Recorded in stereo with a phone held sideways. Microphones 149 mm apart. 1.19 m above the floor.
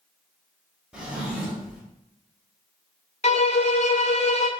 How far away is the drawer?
About 1.4 m.